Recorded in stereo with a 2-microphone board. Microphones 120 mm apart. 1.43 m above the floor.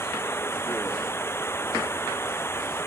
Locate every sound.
0.0 s running water: 20° left (ahead or behind)